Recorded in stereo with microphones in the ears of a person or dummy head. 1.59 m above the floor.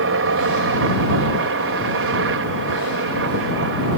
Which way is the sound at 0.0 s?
65° right (ahead or behind).